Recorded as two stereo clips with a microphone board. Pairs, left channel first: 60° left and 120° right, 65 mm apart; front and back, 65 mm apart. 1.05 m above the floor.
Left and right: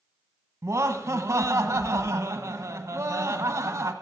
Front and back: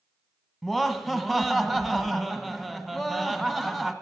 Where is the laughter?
90° right, 1.3 m.